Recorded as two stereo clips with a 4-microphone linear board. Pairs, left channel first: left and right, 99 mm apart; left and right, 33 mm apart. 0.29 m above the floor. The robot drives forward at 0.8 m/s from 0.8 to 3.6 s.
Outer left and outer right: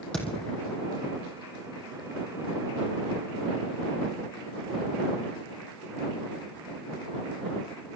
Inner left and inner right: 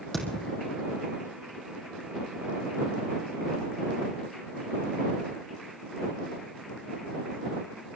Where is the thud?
10° left (ahead or behind), 4 m.